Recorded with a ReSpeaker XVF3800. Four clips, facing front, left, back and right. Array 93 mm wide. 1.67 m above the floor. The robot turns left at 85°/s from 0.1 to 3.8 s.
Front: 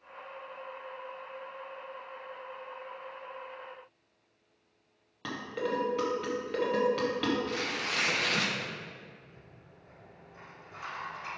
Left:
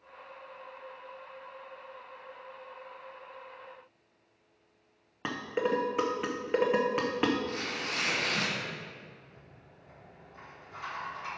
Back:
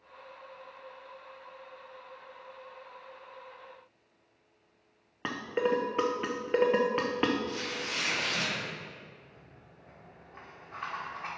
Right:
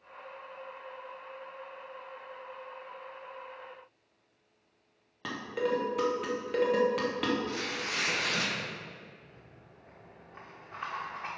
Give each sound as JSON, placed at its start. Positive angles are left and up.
{"t": 5.2, "sound": "dishes clattering", "azimuth_deg": 145, "distance_m": 0.8}
{"t": 7.5, "sound": "tearing paper", "azimuth_deg": -5, "distance_m": 1.2}
{"t": 9.2, "sound": "a rattle", "azimuth_deg": -135, "distance_m": 1.9}